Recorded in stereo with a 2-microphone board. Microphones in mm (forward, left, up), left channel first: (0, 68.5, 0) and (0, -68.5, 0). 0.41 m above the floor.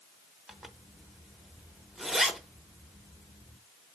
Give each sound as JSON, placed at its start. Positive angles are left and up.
{"t": 0.5, "sound": "a zipper", "side_deg": 0, "distance_m": 0.7}